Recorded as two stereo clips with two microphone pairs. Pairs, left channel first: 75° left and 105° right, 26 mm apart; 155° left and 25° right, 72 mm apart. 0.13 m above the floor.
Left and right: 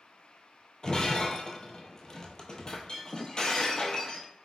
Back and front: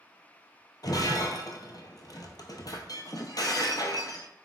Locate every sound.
0.8 s breaking glass: 130° left, 0.7 m